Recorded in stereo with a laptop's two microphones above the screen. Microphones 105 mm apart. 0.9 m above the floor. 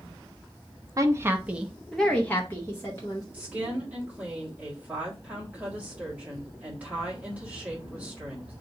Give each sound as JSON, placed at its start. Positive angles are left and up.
{"t": 1.0, "sound": "a woman speaking", "side_deg": -35, "distance_m": 0.6}
{"t": 3.3, "sound": "a woman speaking", "side_deg": -15, "distance_m": 1.5}